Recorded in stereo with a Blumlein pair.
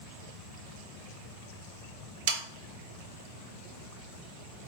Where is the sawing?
55° right, 0.9 m.